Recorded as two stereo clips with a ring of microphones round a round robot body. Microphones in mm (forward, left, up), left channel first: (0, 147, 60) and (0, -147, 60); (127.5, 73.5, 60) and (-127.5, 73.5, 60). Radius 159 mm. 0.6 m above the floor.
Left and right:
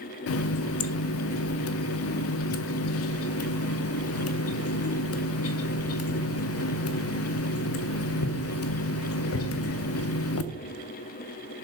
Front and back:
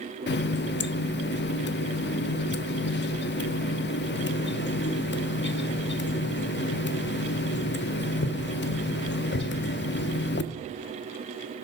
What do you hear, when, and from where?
0.3 s a running tap: 50° left, 0.5 m